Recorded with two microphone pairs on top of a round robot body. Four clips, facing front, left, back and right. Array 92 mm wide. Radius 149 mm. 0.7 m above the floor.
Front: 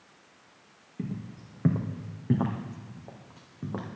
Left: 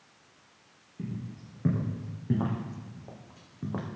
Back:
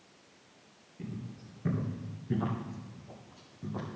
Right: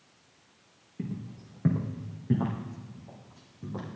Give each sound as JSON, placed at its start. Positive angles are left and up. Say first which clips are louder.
{"t": 1.0, "sound": "footsteps", "louder": "right 1 dB, front 5 dB", "azimuth_deg": -25, "distance_m": 2.0}